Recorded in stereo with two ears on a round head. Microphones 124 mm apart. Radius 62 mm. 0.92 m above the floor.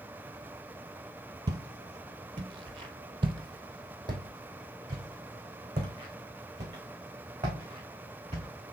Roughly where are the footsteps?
Right.